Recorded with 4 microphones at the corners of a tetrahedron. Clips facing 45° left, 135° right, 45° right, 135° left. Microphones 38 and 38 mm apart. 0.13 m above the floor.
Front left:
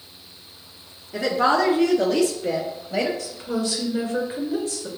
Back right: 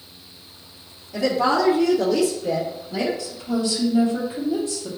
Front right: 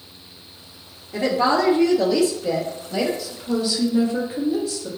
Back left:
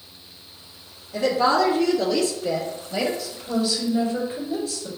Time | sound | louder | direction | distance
1.1 | a woman speaking | even, even | straight ahead | 1.5 m
3.2 | a woman speaking | back right 2 dB, front right 1 dB | 40° left | 2 m